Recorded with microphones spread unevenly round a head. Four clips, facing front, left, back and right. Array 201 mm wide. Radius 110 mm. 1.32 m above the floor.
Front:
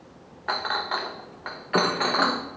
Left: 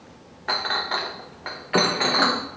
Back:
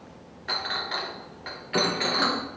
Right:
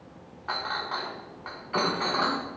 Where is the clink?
55° left, 0.8 m.